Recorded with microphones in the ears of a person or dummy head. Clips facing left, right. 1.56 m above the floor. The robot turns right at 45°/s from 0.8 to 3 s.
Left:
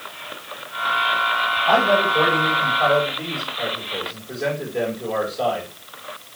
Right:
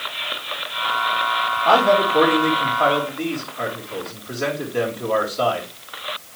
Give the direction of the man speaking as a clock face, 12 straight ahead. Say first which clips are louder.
Right 2 dB; 4 o'clock.